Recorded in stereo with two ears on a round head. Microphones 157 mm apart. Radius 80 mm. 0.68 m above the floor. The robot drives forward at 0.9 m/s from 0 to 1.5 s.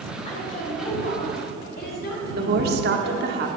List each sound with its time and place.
0.2 s a woman speaking: 40° left (ahead or behind), 4 m; by 3.4 s 55° left (ahead or behind), 3 m
2.4 s a woman speaking: 65° right (ahead or behind), 1.5 m